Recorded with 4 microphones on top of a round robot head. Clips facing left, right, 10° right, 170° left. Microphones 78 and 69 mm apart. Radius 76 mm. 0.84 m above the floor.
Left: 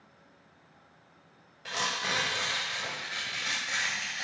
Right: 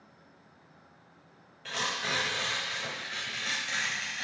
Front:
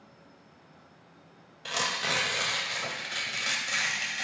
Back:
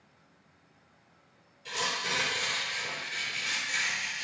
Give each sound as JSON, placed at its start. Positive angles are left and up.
{"t": 1.6, "sound": "tearing paper", "azimuth_deg": 10, "distance_m": 1.3}